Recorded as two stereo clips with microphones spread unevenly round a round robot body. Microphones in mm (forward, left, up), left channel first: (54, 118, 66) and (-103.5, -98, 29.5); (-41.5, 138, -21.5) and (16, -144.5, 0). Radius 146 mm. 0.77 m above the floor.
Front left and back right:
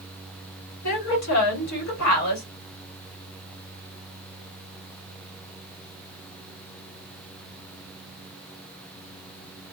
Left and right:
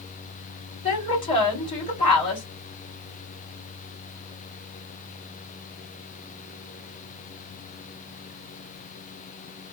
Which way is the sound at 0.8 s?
30° left.